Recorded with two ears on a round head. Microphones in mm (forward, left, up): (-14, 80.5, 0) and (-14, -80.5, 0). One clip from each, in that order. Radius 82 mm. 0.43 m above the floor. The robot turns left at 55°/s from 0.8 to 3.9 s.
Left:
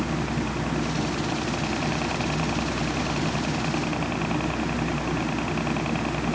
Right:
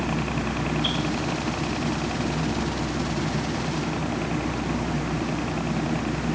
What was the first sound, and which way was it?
A helicopter, 150° right.